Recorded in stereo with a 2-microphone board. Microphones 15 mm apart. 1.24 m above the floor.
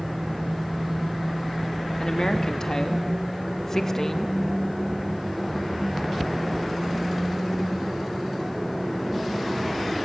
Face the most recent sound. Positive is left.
turn(degrees=20)  # may be behind; listen again after turning